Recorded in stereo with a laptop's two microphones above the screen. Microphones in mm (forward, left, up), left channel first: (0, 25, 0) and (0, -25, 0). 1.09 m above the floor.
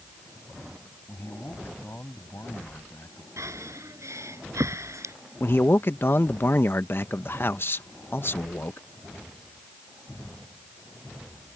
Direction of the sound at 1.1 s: 50° left (ahead or behind).